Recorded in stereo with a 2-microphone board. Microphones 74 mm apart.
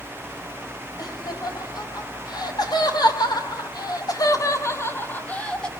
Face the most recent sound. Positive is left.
turn(degrees=10)  # may be behind; listen again after turning